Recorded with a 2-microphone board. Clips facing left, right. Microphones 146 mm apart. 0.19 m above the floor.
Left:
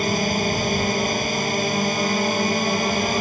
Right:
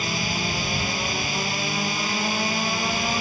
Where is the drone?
45° left (ahead or behind).